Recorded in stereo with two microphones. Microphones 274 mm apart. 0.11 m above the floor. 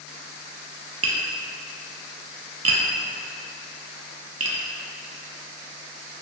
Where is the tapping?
60° right (ahead or behind), 0.6 m.